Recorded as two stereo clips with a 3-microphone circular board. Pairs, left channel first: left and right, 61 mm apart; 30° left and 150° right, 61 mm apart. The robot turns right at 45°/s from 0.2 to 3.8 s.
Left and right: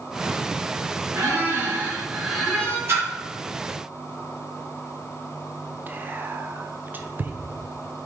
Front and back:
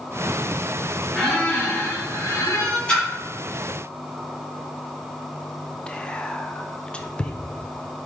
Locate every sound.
1.1 s a squeak: 55° right, 2.5 m; by 2.8 s 20° left, 2.5 m
2.9 s a splash: 45° right, 2.5 m; by 3.1 s 35° right, 2.5 m
5.9 s whispering: 40° right, 0.5 m